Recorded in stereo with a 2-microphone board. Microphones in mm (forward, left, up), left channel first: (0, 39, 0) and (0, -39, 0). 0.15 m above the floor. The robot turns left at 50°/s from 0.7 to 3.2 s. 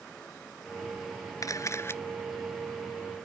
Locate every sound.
1.4 s a camera shutter: 50° left (ahead or behind); by 2.0 s 30° left (ahead or behind)